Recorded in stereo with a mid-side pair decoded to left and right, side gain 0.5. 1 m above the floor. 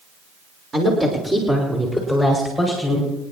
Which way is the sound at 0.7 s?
30° right.